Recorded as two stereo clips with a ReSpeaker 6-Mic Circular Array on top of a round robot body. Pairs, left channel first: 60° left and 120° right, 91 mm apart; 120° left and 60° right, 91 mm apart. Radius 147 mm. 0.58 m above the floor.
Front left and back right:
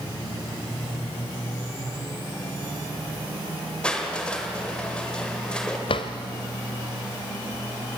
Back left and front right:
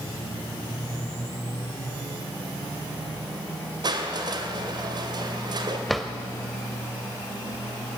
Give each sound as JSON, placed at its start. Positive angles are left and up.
{"t": 3.8, "sound": "crushing", "azimuth_deg": -20, "distance_m": 2.0}
{"t": 5.9, "sound": "a drawer", "azimuth_deg": 30, "distance_m": 0.8}